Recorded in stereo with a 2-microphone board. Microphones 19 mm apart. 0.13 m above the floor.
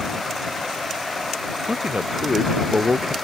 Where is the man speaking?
85° right; by 3.1 s 80° right.